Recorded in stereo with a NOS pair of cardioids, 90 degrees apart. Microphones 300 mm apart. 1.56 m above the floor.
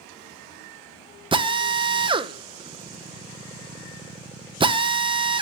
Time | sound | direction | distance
1.3 | a drill | 15° right | 1.2 m